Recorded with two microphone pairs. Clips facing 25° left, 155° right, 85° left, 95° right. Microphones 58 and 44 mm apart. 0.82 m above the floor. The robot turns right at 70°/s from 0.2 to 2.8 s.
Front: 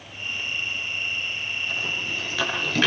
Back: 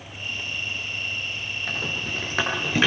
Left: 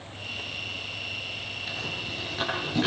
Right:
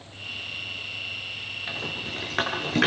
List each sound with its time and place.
1.7 s a rattle: 160° right, 8.5 m; by 2.9 s 80° right, 8.5 m